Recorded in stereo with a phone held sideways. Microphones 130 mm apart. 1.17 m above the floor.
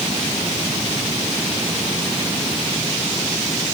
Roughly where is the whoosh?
I don't hear a whoosh.